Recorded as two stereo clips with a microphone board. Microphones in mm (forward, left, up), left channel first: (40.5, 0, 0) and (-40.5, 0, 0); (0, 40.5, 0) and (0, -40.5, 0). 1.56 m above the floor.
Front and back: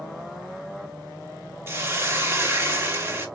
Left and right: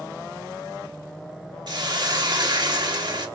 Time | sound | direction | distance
1.7 | a hiss | 120° right | 1.4 m